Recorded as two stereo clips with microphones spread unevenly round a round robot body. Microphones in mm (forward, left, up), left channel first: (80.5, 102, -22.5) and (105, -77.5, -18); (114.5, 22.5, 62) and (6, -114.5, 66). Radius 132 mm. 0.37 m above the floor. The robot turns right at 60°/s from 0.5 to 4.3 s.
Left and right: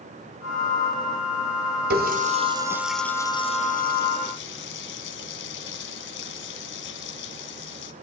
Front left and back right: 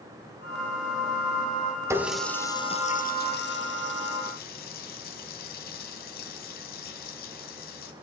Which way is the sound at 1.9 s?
55° right.